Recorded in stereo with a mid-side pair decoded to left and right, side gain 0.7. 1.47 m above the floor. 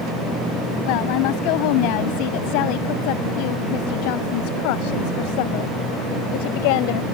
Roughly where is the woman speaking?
Left.